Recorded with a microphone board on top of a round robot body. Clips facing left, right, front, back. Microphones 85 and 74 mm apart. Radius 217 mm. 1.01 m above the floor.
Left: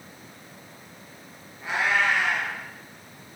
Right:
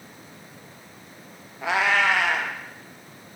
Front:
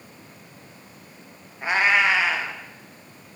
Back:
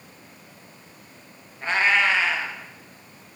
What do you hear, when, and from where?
1.6 s a cat meowing: 80° right, 0.7 m